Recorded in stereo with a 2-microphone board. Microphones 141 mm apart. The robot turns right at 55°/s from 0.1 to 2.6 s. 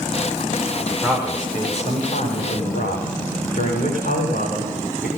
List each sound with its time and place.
1.0 s a man speaking: 10° left, 7 m; by 5.1 s 100° left, 7 m